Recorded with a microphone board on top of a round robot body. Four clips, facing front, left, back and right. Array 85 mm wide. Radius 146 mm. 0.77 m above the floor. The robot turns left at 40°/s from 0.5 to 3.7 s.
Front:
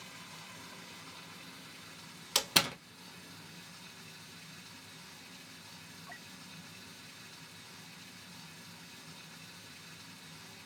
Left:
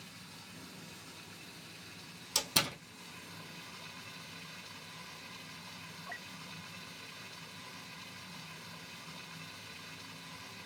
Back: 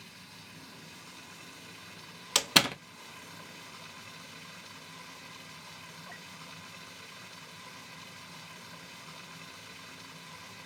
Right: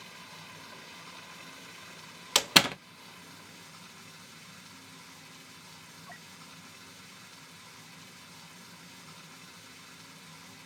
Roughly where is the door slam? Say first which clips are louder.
Right 10 dB, back 5 dB; right.